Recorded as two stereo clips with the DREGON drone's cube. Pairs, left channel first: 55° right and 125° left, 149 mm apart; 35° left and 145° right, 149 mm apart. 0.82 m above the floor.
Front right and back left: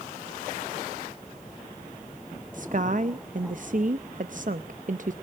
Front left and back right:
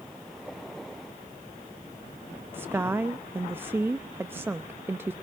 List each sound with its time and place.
2.5 s a woman speaking: 140° left, 0.6 m